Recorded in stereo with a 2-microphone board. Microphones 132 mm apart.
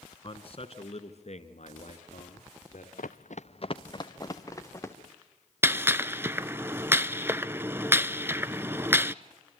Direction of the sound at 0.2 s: 45° left (ahead or behind).